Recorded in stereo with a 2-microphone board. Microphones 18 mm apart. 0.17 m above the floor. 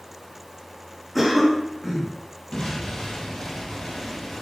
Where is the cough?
5° right (ahead or behind), 2.5 m.